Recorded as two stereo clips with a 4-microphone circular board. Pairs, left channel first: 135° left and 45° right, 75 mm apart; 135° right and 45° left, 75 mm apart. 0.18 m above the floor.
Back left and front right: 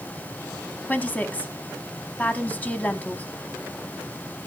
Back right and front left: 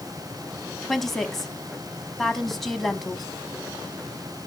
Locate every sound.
0.9 s a woman speaking: 140° left, 1.0 m